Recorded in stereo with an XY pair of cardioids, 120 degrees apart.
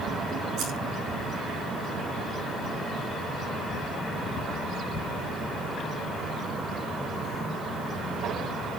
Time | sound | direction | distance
0.6 | scissors | 70° right | 8 m